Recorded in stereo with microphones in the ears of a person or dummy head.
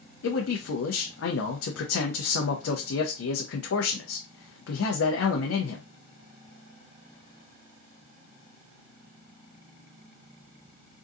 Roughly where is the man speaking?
Left.